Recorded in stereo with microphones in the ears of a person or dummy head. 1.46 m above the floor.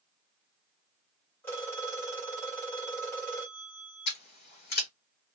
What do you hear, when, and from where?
1.4 s a phone ringing: 10° left (ahead or behind), 1.4 m
4.1 s scissors: 50° left (ahead or behind), 1.2 m